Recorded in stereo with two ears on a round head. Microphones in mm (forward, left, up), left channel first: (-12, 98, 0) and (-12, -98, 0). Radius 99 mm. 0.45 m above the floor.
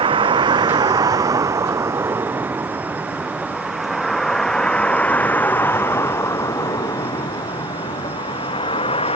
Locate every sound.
0.0 s a vehicle: 25° right (ahead or behind); by 9.2 s 25° left (ahead or behind)